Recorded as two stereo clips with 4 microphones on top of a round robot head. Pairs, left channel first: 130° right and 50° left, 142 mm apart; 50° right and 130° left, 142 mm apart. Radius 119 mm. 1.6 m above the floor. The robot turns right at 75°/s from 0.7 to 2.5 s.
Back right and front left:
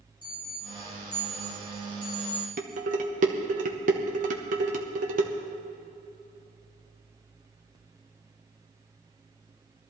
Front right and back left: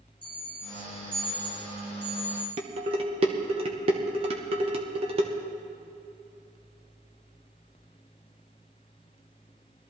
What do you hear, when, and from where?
0.2 s an alarm: straight ahead, 4 m; by 2.5 s 130° left, 4 m
2.6 s dishes clattering: 80° left, 1.0 m